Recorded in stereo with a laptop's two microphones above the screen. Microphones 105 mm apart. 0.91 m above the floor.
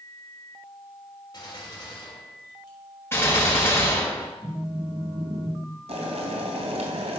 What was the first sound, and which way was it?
A gunshot, 40° left (ahead or behind).